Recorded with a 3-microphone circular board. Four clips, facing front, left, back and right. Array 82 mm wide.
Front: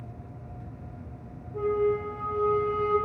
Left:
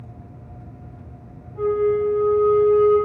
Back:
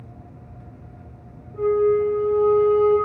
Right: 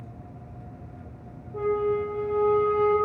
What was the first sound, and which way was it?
A flute, 80° right.